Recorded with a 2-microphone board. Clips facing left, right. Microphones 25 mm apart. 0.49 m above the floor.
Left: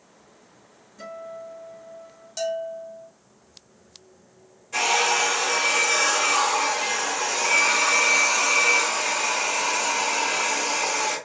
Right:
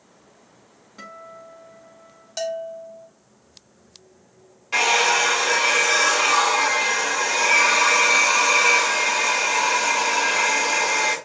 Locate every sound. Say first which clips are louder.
1.0 s a guitar: left 3 dB; 80° right, 2.5 m
2.4 s a bell: even; 25° right (ahead or behind), 0.7 m
4.7 s a hair dryer: right 3 dB; 70° right (ahead or behind), 2.5 m